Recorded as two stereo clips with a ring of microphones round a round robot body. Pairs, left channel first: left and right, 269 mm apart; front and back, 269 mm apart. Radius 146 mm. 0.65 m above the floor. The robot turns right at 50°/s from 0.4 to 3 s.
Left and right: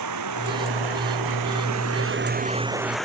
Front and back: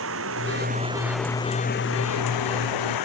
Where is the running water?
130° right; by 3.1 s straight ahead.